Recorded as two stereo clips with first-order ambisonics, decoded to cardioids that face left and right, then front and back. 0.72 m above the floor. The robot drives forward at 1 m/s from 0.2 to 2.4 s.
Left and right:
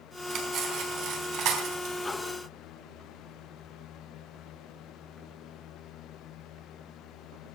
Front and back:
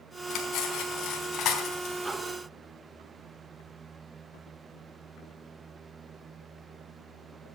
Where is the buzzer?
No buzzer in this recording.